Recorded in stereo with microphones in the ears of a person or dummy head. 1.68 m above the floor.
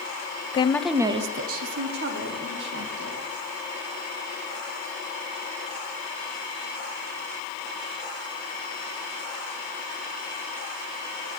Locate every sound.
0.5 s a woman speaking: 30° left (ahead or behind), 0.6 m; by 3.2 s 75° right (ahead or behind), 2 m